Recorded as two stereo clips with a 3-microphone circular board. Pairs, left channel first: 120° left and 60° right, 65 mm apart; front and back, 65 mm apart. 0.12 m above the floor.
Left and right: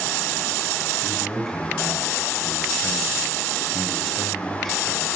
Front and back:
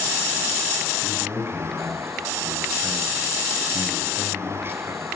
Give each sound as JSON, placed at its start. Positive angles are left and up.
{"t": 1.0, "sound": "a man speaking", "azimuth_deg": -165, "distance_m": 2.0}